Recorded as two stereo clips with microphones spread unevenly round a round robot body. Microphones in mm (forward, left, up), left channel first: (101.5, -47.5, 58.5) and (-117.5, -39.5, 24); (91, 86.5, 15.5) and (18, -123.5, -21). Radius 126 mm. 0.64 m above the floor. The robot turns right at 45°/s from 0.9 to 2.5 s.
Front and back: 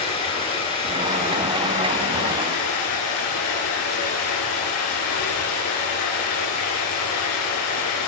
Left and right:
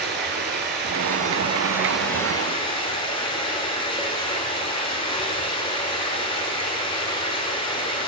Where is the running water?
65° right, 1.9 m; by 8.1 s 5° left, 1.9 m.